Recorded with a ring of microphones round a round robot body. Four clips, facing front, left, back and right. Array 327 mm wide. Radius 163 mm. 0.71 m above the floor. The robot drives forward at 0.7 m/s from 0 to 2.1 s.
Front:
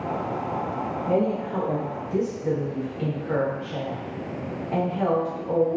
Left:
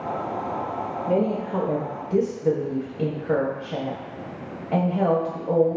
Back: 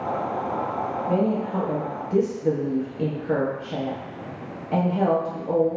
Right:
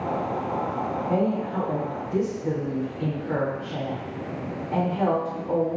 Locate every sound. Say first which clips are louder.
1.1 s a woman speaking: left 3 dB, even; 45° left, 0.7 m; by 5.8 s 130° left, 0.7 m